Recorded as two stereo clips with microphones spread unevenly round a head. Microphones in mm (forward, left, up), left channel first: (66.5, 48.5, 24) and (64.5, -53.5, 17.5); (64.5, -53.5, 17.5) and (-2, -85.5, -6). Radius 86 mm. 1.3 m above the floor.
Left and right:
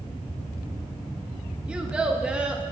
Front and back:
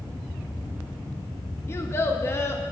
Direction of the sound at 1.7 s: 10° right.